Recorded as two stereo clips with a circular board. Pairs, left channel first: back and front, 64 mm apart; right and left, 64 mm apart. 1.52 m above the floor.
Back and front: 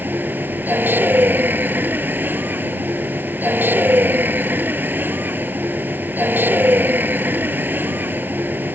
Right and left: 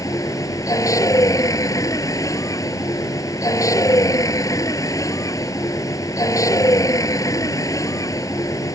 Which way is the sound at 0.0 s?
60° right.